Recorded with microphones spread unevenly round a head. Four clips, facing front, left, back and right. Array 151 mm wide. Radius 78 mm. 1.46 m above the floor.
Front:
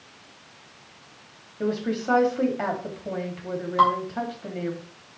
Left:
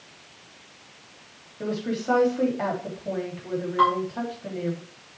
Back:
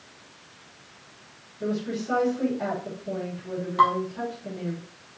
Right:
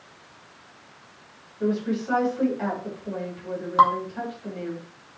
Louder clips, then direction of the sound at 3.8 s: Right 3 dB, front 1 dB; 90° right.